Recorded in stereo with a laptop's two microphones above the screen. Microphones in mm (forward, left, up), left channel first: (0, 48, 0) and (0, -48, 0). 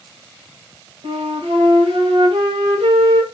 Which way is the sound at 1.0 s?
70° right (ahead or behind).